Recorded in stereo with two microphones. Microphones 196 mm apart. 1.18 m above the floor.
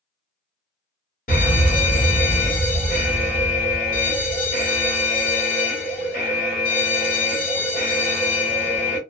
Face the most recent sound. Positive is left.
turn(degrees=50)  # may be behind; listen again after turning